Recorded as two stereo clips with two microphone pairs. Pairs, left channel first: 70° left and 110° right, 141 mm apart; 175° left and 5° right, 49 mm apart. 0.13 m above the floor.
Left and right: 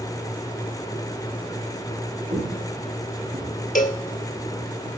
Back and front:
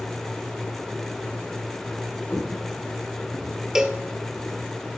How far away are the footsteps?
About 7 m.